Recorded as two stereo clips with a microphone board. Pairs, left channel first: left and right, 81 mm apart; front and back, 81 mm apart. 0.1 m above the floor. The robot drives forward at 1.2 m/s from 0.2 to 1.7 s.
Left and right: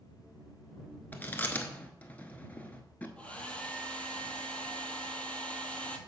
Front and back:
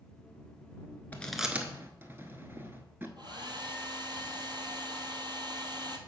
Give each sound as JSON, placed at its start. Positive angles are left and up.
{"t": 1.1, "sound": "chewing", "azimuth_deg": 45, "distance_m": 0.8}
{"t": 3.2, "sound": "a hair dryer", "azimuth_deg": 165, "distance_m": 1.0}